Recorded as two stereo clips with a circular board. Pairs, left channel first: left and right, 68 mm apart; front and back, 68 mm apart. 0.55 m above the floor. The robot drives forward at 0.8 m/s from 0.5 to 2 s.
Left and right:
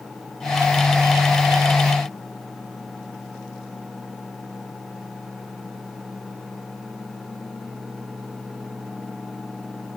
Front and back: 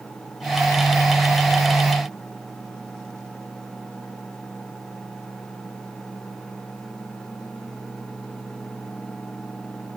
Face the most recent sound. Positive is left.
No sound to turn to.